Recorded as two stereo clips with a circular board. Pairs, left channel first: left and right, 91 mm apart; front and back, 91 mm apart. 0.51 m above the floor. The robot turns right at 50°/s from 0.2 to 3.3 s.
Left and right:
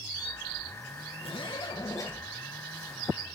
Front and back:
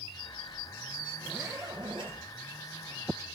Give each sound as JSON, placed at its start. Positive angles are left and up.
{"t": 1.2, "sound": "a zipper", "azimuth_deg": 105, "distance_m": 3.5}